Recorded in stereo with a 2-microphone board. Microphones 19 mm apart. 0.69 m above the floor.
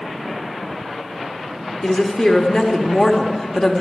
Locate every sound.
1.8 s a woman speaking: 30° left (ahead or behind), 1.1 m